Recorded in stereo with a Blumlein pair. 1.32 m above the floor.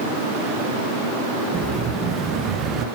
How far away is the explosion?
About 0.9 m.